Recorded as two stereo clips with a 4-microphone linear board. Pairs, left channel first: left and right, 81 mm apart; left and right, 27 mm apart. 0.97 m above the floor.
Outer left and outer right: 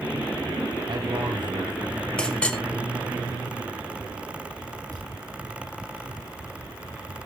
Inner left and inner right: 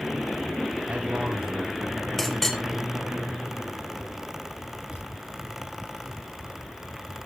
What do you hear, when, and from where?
0.9 s a man speaking: 70° right (ahead or behind), 5 m; by 2.1 s 55° right (ahead or behind), 5 m
2.2 s a clink: 10° left (ahead or behind), 1.4 m
4.9 s a thud: 45° right (ahead or behind), 8.5 m